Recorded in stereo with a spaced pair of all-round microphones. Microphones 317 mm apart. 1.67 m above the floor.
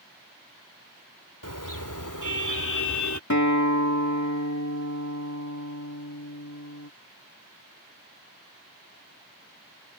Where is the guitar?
60° left (ahead or behind).